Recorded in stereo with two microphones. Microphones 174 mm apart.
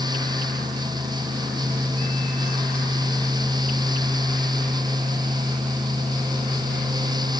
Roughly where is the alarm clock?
I don't hear an alarm clock.